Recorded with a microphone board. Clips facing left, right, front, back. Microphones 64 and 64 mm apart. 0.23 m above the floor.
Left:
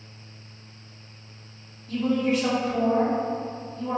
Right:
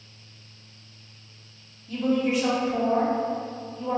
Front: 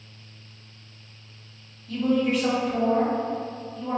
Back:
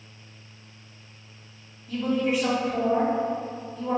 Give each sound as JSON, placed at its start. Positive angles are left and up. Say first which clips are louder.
{"t": 1.9, "sound": "a woman speaking", "louder": "even, front 2 dB", "azimuth_deg": -115, "distance_m": 1.4}